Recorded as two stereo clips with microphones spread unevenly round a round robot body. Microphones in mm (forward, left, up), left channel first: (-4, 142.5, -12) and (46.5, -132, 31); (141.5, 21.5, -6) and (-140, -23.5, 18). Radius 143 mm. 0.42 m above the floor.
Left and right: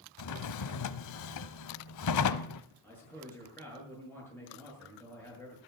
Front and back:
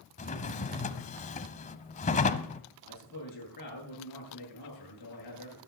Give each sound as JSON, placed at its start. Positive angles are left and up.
{"t": 0.2, "sound": "a drawer", "azimuth_deg": 75, "distance_m": 0.8}
{"t": 2.8, "sound": "a man speaking", "azimuth_deg": 20, "distance_m": 8.0}